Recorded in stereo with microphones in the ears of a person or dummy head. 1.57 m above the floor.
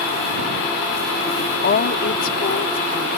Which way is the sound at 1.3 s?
70° left (ahead or behind).